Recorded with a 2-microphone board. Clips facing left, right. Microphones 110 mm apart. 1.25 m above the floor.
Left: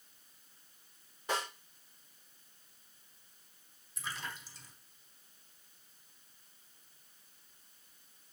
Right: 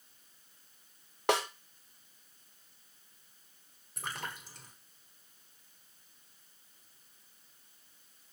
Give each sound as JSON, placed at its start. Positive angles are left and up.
{"t": 1.3, "sound": "a snare drum", "side_deg": -80, "distance_m": 1.0}
{"t": 4.0, "sound": "a splash", "side_deg": -60, "distance_m": 1.5}